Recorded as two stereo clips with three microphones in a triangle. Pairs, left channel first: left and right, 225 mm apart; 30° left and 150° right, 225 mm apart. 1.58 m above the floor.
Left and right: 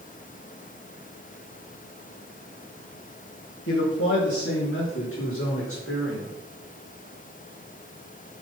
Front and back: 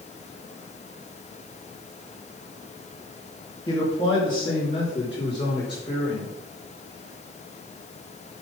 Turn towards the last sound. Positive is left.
turn(degrees=95)